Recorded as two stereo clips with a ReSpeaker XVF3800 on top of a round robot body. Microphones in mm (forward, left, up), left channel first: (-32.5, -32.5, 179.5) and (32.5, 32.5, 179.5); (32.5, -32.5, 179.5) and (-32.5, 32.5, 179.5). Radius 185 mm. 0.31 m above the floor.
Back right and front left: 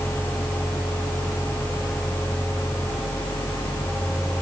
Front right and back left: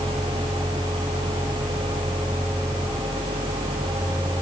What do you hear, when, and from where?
Only background noise.